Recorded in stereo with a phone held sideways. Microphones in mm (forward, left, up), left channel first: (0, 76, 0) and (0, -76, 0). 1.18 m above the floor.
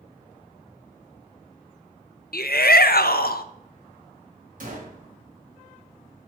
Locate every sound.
2.3 s a shout: 85° left, 0.6 m
4.6 s a gunshot: 60° right (ahead or behind), 1.7 m